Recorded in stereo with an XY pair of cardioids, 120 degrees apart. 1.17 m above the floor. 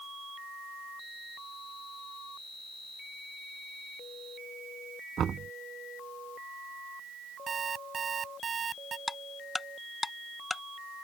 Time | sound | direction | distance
5.2 | knocking | 45° right | ?
7.5 | an alarm clock | 40° right | ?
9.1 | ticking | 15° left | ?